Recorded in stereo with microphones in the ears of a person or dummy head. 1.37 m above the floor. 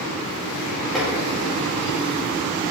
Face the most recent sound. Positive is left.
turn(degrees=5)  # may be behind; listen again after turning